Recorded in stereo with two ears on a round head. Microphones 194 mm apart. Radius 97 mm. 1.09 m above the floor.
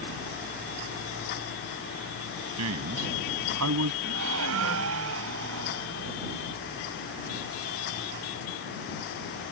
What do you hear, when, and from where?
2.6 s a man speaking: 80° right
4.0 s a gasp: 70° right (ahead or behind)